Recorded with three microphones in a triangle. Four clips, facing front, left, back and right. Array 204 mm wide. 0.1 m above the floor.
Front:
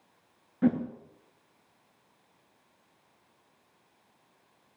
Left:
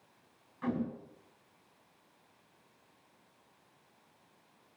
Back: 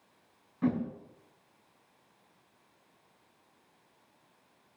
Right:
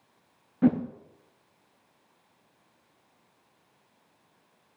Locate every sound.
0.6 s a whoosh: 65° right, 4 m